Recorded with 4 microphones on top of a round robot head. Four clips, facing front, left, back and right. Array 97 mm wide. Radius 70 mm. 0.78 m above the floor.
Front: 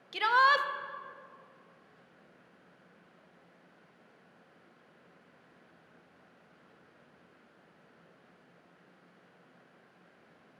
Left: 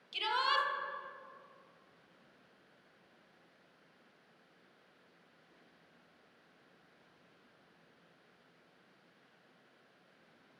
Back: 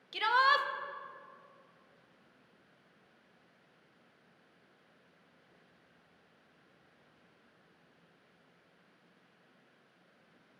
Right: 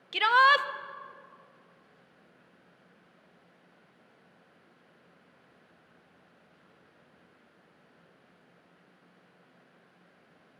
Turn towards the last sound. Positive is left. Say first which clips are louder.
# right 12 dB, front 3 dB
turn(degrees=-80)